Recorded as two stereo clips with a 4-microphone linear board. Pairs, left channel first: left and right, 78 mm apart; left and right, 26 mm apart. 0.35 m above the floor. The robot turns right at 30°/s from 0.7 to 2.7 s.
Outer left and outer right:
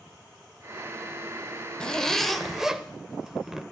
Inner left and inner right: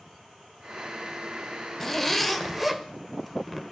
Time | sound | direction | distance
1.8 | a zipper | 10° left (ahead or behind) | 1.0 m